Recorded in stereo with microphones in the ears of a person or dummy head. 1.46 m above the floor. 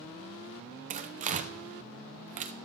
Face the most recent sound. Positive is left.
turn(degrees=-35)  # may be behind; listen again after turning